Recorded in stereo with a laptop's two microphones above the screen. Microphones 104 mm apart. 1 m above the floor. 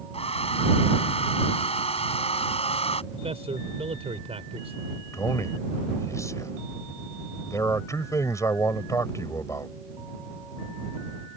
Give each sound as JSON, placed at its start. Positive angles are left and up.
{"t": 0.1, "sound": "a hair dryer", "side_deg": 70}
{"t": 3.1, "sound": "a man speaking", "side_deg": -75}
{"t": 5.1, "sound": "a man speaking", "side_deg": 30}